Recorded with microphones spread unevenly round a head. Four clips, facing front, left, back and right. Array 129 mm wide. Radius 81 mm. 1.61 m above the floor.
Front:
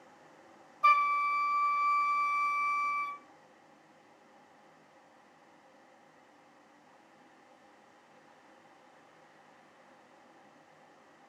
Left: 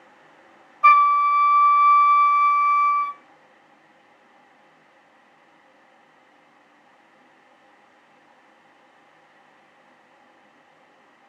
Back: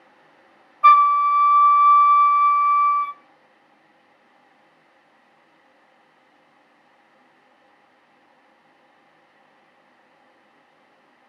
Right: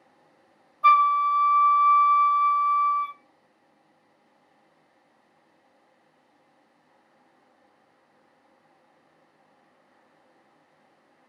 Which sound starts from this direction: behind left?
A flute, at 0.8 s.